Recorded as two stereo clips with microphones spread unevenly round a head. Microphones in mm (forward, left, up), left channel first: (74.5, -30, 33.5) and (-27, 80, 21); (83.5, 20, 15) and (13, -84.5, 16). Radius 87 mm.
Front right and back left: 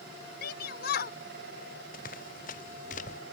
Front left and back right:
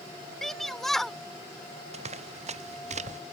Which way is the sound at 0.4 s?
30° right.